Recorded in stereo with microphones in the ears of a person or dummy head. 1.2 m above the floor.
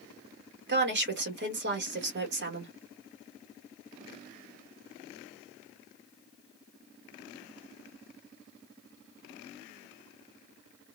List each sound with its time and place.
0.7 s a woman speaking: 55° right (ahead or behind), 1.3 m